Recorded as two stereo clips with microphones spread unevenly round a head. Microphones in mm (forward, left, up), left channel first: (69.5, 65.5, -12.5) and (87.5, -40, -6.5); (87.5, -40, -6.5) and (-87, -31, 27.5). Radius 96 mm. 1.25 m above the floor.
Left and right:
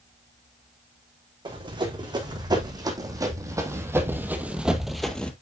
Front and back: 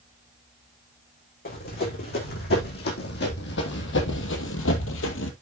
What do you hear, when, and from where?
1.4 s running footsteps: 40° right, 5 m; by 5.3 s 20° left, 2 m